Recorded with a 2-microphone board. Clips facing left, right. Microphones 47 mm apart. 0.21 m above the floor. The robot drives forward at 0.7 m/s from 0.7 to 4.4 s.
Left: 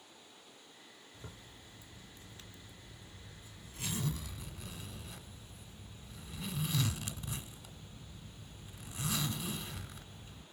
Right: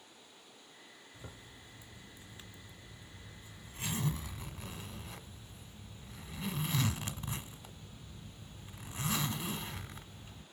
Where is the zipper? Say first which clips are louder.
Right 1 dB; 15° right (ahead or behind), 3 m; by 10.4 s 30° right (ahead or behind), 1.3 m.